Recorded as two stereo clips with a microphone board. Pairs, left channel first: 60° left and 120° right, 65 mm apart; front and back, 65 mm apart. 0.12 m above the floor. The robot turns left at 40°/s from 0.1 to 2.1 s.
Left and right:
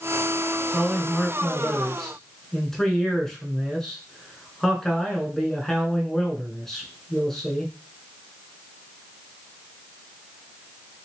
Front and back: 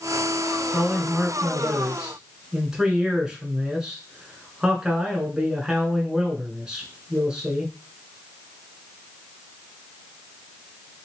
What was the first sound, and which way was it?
A man speaking, 175° right.